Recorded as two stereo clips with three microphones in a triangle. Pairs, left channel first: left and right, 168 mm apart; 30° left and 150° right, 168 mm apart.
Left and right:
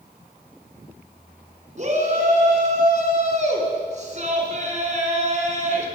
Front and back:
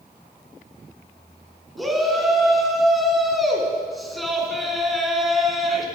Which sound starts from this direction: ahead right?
A shout, at 1.8 s.